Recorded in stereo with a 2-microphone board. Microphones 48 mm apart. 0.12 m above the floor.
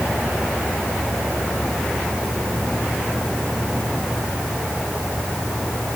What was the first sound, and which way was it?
Only background noise.